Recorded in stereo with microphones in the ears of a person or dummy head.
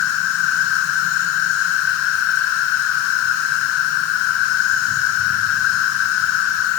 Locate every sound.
0.0 s an insect: 60° left (ahead or behind), 3 m